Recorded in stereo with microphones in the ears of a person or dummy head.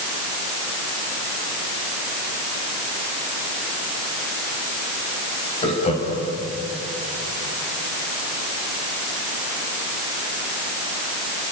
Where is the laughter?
30° left (ahead or behind), 7 m.